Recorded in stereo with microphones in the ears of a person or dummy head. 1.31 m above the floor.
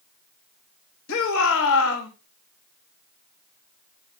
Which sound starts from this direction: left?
A shout, at 1.1 s.